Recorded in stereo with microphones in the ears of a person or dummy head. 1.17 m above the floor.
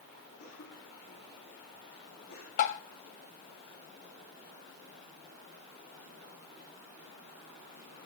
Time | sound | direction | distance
0.4 | a cough | 55° left (ahead or behind) | 9.5 m
2.6 | tapping | 45° left (ahead or behind) | 1.3 m